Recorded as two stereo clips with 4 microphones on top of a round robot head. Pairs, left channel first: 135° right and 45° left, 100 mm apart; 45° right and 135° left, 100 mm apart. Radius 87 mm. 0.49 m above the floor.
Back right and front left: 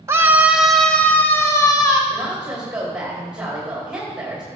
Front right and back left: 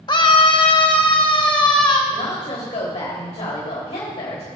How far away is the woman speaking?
About 3 m.